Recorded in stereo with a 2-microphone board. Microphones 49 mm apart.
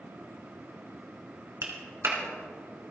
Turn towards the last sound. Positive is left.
turn(degrees=-65)  # may be behind; listen again after turning